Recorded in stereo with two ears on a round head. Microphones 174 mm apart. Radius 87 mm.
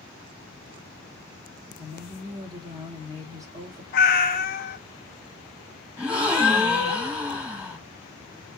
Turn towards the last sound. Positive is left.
turn(degrees=-5)  # may be behind; listen again after turning